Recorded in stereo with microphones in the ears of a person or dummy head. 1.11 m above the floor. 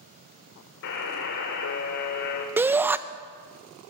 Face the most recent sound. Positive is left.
turn(degrees=-10)  # may be behind; listen again after turning